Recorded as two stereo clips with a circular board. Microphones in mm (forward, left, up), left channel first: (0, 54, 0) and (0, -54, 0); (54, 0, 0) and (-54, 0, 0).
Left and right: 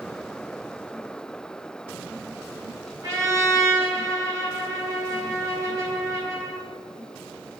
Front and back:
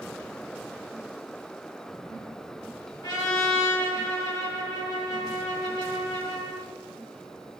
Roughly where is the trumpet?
Ahead right.